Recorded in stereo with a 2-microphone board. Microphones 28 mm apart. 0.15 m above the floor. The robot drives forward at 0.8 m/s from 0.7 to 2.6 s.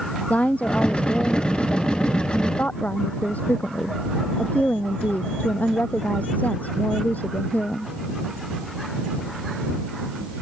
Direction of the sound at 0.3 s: 60° left (ahead or behind).